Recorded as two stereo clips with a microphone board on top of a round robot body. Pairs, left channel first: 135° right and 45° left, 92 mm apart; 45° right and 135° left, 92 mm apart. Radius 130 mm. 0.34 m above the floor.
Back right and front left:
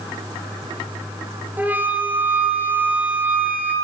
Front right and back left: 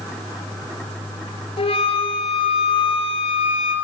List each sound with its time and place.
1.6 s a flute: 30° right, 1.6 m